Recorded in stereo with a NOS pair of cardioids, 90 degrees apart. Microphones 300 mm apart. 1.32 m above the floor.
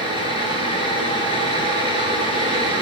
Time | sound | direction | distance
0.0 | a fan | 20° right | 2 m